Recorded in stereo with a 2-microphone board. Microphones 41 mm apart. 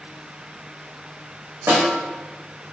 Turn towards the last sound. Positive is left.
turn(degrees=-65)  # may be behind; listen again after turning